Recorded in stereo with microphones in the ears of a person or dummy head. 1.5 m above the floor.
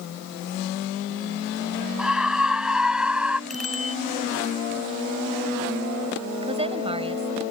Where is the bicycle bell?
5° right (ahead or behind).